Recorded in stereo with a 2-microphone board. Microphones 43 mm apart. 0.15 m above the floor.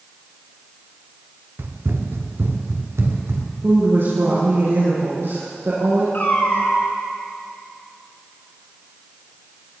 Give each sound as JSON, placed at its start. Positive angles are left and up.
{"t": 1.6, "sound": "running footsteps", "side_deg": -60, "distance_m": 2.0}
{"t": 3.6, "sound": "a woman speaking", "side_deg": -65, "distance_m": 5.5}
{"t": 6.1, "sound": "a cat meowing", "side_deg": 50, "distance_m": 6.5}